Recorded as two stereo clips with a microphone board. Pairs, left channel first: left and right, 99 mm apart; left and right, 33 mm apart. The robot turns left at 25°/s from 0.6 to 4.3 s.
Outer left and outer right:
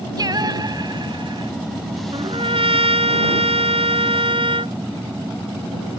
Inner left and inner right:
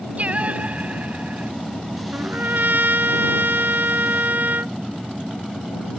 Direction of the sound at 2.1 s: 60° right.